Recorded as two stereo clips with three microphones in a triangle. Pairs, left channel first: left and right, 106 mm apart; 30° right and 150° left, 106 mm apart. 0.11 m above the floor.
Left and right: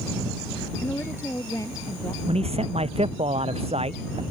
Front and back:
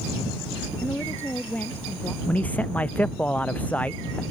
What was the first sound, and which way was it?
A woman speaking, 30° left.